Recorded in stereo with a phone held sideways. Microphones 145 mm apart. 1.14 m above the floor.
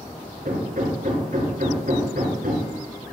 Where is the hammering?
80° right, 5 m.